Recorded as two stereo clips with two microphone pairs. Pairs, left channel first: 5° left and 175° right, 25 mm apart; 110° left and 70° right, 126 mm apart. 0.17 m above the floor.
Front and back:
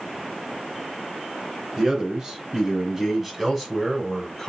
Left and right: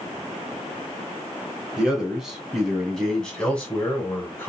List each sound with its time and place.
1.8 s a man speaking: 145° right, 1.8 m; by 4.5 s 75° left, 1.7 m